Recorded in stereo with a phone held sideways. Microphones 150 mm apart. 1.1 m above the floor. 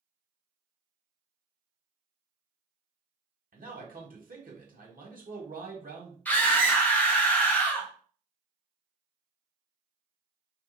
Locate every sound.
3.5 s a man speaking: 70° right (ahead or behind), 1.3 m
6.2 s a scream: 10° left (ahead or behind), 1.2 m